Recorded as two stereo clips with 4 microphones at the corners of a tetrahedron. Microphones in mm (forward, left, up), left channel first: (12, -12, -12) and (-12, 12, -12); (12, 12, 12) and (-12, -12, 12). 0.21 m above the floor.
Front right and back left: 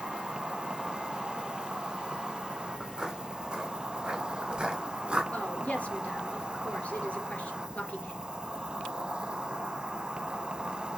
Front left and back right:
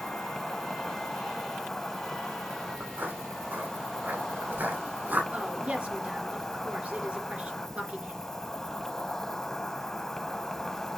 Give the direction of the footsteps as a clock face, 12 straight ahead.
5 o'clock.